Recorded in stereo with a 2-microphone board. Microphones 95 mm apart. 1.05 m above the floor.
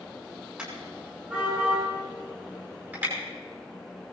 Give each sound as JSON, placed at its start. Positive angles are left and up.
{"t": 0.6, "sound": "a car horn", "side_deg": -10, "distance_m": 6.5}